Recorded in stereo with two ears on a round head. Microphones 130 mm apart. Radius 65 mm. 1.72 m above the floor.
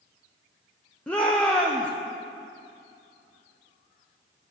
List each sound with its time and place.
1.1 s a shout: 10° left (ahead or behind), 0.7 m